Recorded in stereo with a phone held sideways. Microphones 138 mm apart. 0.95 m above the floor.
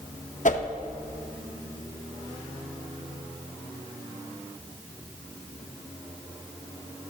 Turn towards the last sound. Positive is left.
turn(degrees=65)  # may be behind; listen again after turning